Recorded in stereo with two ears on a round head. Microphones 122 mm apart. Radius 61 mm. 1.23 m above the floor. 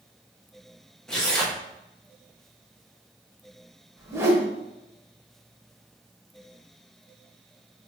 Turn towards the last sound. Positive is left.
turn(degrees=-20)  # may be behind; listen again after turning